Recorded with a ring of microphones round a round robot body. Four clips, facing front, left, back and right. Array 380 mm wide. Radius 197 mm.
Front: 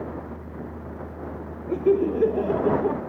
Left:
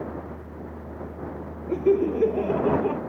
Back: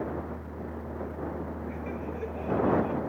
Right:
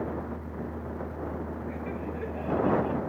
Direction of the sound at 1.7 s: 40° left.